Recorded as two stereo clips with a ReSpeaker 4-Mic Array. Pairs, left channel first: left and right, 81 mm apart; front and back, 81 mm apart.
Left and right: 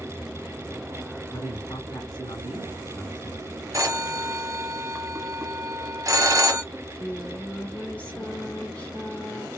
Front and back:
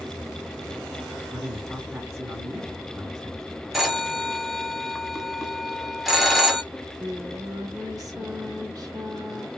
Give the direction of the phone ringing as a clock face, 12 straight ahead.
3 o'clock.